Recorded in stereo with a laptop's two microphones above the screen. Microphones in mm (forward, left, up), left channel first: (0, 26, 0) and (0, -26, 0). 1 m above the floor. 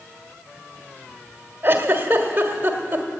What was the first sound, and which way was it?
A giggle, 40° right (ahead or behind).